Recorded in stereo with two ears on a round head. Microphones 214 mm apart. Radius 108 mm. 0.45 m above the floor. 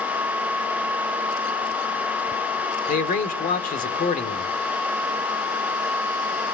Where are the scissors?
I don't hear scissors.